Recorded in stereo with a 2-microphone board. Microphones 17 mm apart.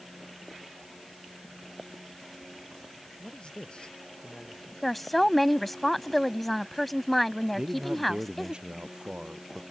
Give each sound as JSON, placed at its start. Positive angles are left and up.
{"t": 3.2, "sound": "a man speaking", "side_deg": 65}
{"t": 4.8, "sound": "a woman speaking", "side_deg": 10}
{"t": 7.5, "sound": "a man speaking", "side_deg": -60}